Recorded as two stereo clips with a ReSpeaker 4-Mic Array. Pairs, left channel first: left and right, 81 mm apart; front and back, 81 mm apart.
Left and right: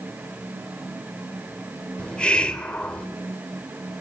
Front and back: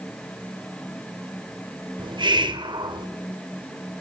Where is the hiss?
170° left, 1.6 m.